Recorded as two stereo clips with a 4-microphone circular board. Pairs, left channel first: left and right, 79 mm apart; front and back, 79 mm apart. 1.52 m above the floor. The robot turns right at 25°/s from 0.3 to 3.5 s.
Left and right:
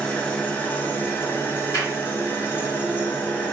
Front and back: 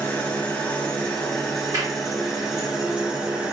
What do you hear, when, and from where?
0.0 s an engine running: 45° left, 0.8 m; by 3.5 s 125° left, 0.8 m
1.7 s a clap: 140° left, 1.5 m; by 2.0 s 145° left, 1.5 m